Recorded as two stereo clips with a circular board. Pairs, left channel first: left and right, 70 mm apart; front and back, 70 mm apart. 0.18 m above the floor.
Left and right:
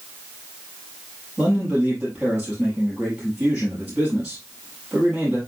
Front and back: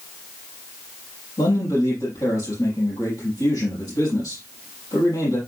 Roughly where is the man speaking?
Ahead.